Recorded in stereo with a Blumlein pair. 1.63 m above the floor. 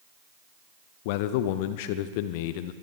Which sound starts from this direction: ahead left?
A man speaking, at 1.1 s.